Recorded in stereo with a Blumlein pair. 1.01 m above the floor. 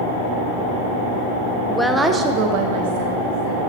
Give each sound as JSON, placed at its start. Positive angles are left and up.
{"t": 1.7, "sound": "a woman speaking", "azimuth_deg": 10, "distance_m": 0.7}